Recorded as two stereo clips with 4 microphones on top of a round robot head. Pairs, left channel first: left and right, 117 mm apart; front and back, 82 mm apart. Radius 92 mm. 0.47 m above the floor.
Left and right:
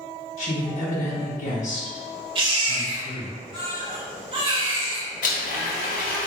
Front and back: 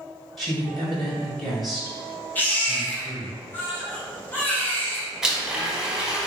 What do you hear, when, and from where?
0.4 s a woman speaking: 85° left, 1.9 m
2.4 s a baby crying: 65° right, 1.0 m
5.2 s a blender: 95° left, 0.8 m